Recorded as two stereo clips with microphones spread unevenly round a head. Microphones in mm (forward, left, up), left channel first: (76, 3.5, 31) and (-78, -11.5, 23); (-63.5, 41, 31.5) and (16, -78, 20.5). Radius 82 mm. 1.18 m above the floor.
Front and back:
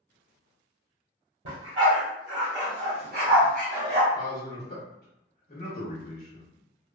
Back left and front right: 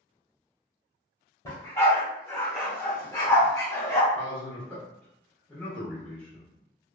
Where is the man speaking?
45° left, 1.2 m.